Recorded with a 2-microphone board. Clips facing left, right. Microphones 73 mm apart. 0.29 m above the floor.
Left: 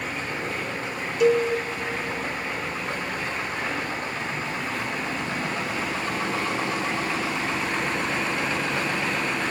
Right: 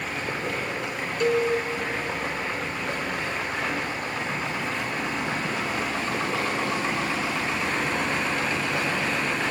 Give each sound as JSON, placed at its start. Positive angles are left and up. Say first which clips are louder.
{"t": 0.0, "sound": "running water", "louder": "even", "side_deg": -85, "distance_m": 7.5}
{"t": 1.2, "sound": "a cowbell", "louder": "left 3 dB", "side_deg": 5, "distance_m": 1.8}